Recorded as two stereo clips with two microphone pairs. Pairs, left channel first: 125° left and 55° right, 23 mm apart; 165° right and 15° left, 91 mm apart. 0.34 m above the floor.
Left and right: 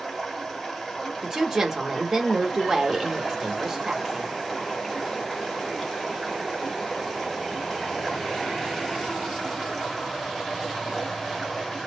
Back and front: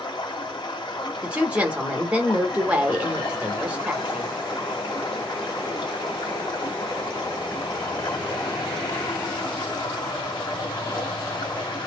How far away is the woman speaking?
About 1.1 m.